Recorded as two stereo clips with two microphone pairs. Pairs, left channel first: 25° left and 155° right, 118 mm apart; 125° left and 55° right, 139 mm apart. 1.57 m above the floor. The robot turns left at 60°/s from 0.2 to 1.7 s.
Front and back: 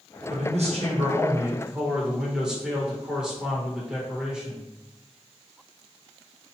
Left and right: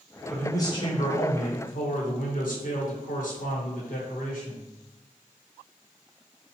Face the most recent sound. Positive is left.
turn(degrees=120)